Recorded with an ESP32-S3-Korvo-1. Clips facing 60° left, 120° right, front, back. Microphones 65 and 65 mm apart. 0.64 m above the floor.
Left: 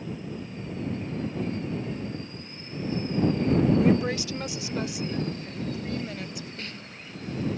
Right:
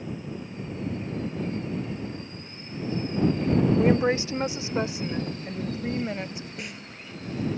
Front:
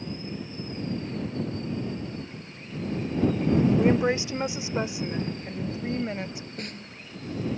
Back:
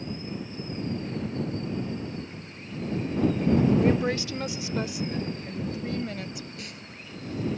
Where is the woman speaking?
65° right; by 6.5 s 60° right.